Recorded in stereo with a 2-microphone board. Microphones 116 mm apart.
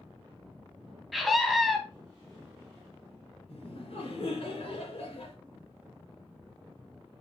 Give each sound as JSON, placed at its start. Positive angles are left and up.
{"t": 1.1, "sound": "a scream", "side_deg": 0, "distance_m": 1.3}
{"t": 3.5, "sound": "laughter", "side_deg": 65, "distance_m": 2.5}